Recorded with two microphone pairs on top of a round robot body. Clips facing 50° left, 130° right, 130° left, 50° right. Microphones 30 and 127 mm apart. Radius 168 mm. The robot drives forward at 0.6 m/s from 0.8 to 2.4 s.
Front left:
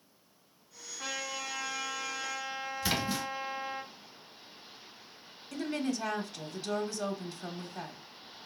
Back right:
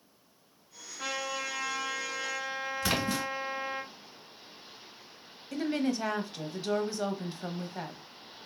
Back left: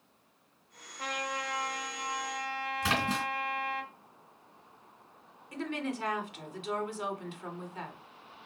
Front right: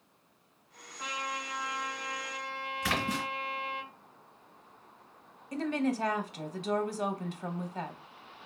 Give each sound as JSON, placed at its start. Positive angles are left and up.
{"t": 1.0, "sound": "a trumpet", "azimuth_deg": 180, "distance_m": 1.8}
{"t": 2.8, "sound": "a splash", "azimuth_deg": -165, "distance_m": 2.5}
{"t": 5.5, "sound": "a woman speaking", "azimuth_deg": -75, "distance_m": 1.1}